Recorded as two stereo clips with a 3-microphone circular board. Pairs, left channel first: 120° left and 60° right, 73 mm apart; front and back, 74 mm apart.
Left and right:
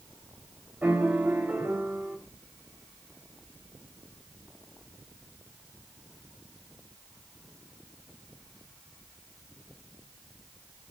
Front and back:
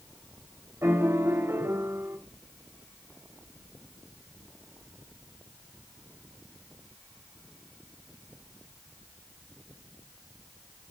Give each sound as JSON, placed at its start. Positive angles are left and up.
{"t": 0.8, "sound": "a piano", "azimuth_deg": -125, "distance_m": 3.0}